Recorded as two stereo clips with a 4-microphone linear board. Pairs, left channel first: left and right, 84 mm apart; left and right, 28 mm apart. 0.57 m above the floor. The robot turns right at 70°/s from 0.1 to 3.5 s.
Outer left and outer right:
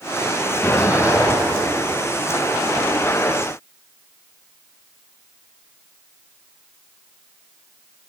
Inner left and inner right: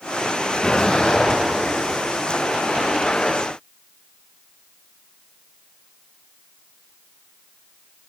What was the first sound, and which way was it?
An explosion, 170° left.